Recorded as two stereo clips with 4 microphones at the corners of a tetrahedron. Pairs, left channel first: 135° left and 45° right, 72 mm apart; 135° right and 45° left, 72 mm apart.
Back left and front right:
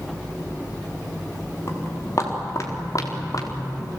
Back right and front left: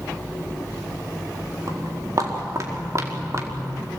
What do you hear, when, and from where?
1.7 s footsteps: 80° left, 7 m; by 4.0 s 100° left, 4.5 m